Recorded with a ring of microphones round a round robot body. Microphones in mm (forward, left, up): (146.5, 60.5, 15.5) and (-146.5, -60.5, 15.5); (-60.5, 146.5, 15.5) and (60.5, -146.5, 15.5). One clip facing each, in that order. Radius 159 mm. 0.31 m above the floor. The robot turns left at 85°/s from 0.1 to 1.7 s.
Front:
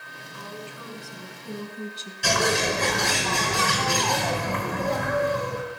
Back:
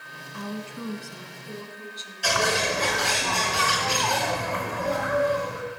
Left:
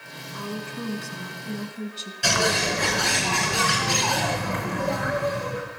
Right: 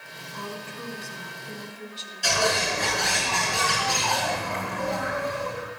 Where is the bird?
85° left, 5 m.